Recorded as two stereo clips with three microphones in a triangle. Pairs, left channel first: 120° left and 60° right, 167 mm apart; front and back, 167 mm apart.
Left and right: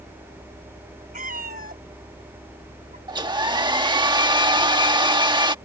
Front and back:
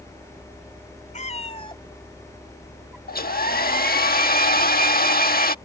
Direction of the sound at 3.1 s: Straight ahead.